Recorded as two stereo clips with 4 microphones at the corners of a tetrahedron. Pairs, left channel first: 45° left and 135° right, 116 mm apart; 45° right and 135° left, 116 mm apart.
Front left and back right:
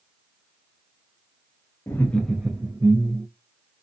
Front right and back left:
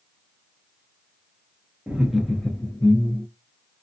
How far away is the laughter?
About 0.7 m.